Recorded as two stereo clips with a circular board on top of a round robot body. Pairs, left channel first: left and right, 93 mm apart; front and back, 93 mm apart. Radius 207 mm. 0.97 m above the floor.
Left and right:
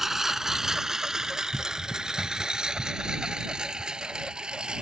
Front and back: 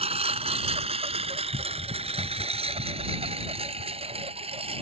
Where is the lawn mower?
175° right; by 4.8 s 170° right.